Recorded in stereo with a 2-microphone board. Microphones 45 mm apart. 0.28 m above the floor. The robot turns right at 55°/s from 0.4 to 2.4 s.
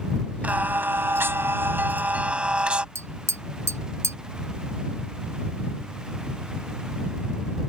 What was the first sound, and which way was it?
Singing, 135° right.